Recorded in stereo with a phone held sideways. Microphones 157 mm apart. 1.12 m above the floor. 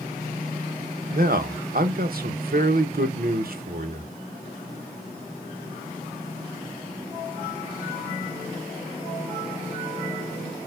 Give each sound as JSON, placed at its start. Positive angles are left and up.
{"t": 1.1, "sound": "a man speaking", "side_deg": -70, "distance_m": 0.8}